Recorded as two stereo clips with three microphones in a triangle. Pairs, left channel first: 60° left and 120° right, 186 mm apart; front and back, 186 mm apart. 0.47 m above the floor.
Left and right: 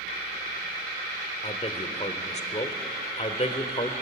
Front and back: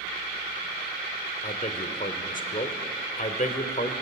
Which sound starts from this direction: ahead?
A man speaking, at 1.4 s.